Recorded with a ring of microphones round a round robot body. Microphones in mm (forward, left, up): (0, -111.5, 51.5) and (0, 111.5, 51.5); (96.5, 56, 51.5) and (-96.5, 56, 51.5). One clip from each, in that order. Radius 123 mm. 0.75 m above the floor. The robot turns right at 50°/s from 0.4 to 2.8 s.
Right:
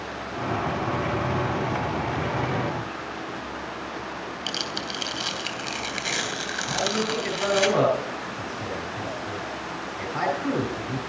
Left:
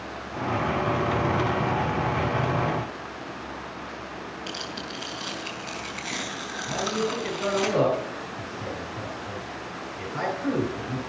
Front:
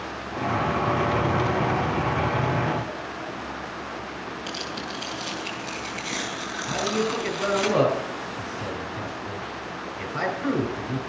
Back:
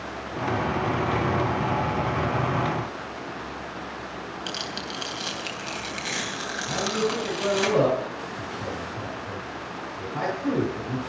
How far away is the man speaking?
About 4.5 m.